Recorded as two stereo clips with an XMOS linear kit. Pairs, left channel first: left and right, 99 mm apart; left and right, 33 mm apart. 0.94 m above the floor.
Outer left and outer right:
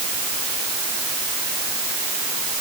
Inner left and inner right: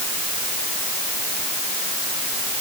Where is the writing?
I don't hear writing.